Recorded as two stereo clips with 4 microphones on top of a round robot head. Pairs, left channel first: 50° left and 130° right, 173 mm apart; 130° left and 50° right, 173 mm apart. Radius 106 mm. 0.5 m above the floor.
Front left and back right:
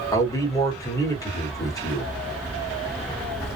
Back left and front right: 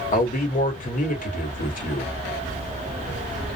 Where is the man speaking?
115° left, 1.6 m.